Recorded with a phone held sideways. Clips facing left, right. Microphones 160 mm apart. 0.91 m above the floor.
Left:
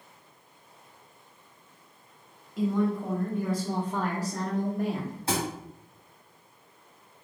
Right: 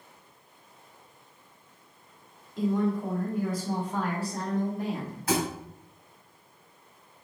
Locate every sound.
2.6 s a woman speaking: 15° left (ahead or behind), 2 m; by 5.2 s 55° left (ahead or behind), 1.9 m
5.3 s a thud: 30° left (ahead or behind), 2 m